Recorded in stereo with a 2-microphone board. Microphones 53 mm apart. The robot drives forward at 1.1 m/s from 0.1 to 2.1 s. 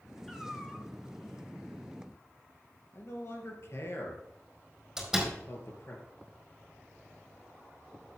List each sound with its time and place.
0.3 s a cat meowing: 10° left (ahead or behind), 2.5 m
2.9 s a man speaking: 60° left (ahead or behind), 3 m
5.0 s a door slam: 5° right (ahead or behind), 4.5 m